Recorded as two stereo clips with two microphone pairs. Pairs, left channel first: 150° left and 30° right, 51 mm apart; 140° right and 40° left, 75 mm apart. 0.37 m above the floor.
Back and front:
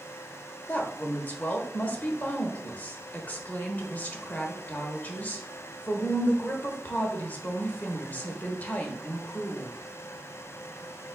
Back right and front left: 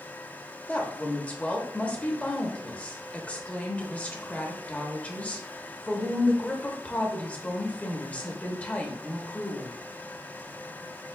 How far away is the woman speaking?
About 0.9 m.